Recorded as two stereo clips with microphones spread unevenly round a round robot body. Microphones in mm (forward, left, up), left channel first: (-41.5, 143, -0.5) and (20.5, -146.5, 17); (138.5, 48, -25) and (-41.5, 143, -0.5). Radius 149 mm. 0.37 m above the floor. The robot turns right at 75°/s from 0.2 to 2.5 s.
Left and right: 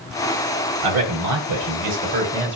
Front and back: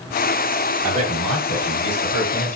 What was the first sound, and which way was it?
A man speaking, 115° right.